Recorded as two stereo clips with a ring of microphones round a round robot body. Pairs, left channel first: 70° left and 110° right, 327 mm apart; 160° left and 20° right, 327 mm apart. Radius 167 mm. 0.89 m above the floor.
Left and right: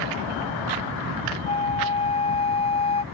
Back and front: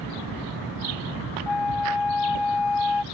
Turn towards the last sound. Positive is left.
turn(degrees=140)